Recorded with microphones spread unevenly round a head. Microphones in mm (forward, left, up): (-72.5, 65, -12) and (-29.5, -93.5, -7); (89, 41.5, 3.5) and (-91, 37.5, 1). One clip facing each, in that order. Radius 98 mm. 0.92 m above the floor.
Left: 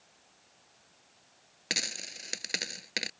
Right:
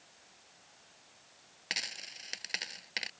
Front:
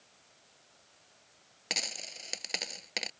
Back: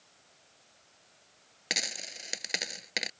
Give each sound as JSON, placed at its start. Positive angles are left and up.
{"t": 1.7, "sound": "a dropped coin", "azimuth_deg": 105}